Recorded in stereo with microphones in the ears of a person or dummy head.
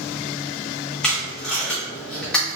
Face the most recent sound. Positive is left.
turn(degrees=5)  # may be behind; listen again after turning